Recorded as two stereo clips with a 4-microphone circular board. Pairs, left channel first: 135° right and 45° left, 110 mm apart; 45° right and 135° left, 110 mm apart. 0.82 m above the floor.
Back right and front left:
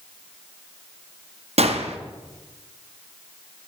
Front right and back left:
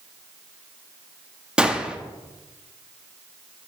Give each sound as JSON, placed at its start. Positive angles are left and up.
{"t": 1.6, "sound": "a gunshot", "azimuth_deg": 55, "distance_m": 0.5}